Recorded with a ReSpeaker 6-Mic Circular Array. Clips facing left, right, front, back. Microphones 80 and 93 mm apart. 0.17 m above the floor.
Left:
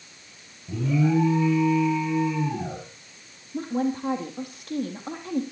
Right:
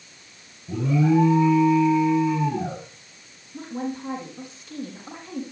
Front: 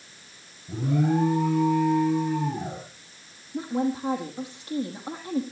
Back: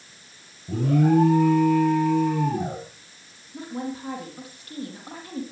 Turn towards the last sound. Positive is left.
turn(degrees=65)